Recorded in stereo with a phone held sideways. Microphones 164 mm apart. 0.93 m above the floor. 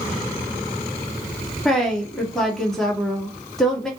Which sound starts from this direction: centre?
A woman speaking, at 1.6 s.